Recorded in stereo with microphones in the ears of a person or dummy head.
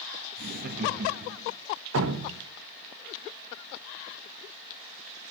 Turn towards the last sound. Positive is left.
turn(degrees=-70)  # may be behind; listen again after turning